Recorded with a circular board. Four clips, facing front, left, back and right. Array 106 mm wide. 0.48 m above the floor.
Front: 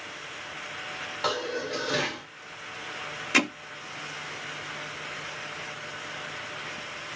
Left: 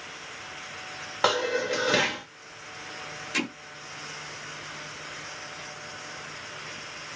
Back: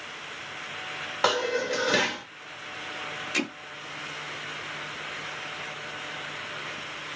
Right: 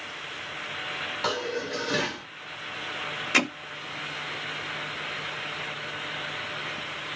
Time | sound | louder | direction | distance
1.2 | dishes clattering | left 5 dB, back 5 dB | 130° left | 1.0 m
3.3 | hammering | right 5 dB, front 5 dB | 50° right | 0.9 m